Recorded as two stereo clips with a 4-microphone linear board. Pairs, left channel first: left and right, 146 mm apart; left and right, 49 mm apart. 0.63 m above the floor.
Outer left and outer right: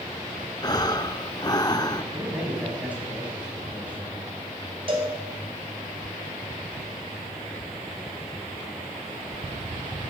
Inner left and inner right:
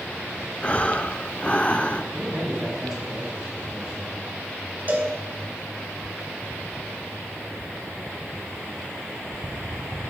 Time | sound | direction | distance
0.6 | breathing | 30° left (ahead or behind) | 0.6 m
2.1 | a man speaking | 10° right (ahead or behind) | 4.5 m
4.9 | a cowbell | 40° right (ahead or behind) | 2.5 m